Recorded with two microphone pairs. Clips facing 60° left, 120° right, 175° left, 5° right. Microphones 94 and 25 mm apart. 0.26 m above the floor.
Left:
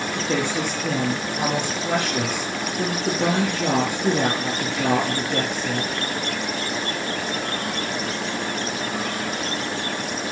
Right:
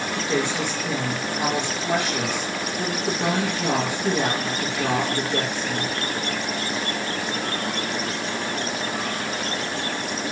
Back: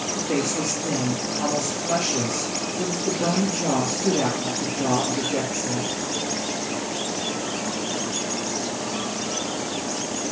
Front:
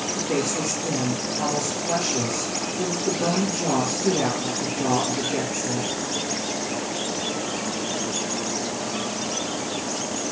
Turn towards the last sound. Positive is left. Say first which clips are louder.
# even, back 1 dB
turn(degrees=90)